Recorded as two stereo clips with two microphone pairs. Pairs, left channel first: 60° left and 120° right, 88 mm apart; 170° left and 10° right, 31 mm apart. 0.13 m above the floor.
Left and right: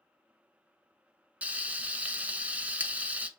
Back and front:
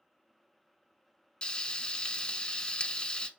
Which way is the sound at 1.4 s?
170° left.